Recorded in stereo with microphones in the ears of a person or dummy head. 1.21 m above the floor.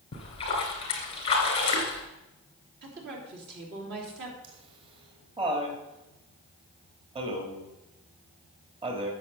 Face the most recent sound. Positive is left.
turn(degrees=-25)  # may be behind; listen again after turning